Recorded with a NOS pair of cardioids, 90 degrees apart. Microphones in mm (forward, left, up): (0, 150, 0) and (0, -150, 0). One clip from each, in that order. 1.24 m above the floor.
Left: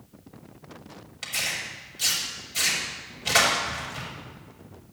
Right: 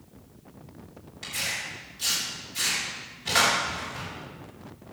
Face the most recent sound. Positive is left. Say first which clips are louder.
# left 2 dB
turn(degrees=45)